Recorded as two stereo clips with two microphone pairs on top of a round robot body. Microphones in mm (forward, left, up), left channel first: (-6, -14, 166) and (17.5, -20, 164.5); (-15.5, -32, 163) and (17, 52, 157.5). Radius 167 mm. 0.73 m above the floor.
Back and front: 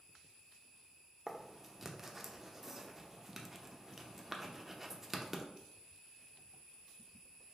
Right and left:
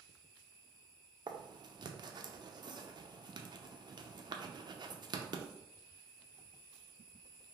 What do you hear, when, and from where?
1.3 s writing: 65° left, 0.6 m